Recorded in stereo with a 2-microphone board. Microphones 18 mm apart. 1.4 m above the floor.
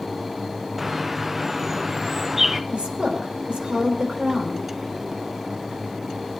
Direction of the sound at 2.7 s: 70° right (ahead or behind).